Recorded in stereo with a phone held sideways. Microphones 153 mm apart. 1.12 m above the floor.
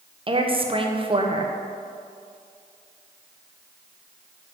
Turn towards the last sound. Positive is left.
turn(degrees=-40)  # may be behind; listen again after turning